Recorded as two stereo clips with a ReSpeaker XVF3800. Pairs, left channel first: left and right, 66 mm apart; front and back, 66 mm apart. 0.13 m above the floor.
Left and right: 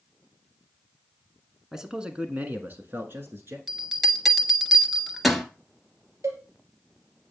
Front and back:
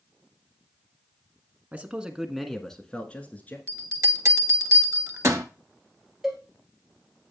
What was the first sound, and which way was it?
A man speaking, 160° right.